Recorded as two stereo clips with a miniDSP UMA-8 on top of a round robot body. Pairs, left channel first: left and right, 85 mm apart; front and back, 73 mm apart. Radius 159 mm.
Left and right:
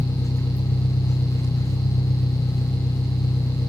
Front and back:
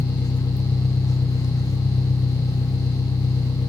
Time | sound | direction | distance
0.0 | an engine running | 40° left | 0.9 m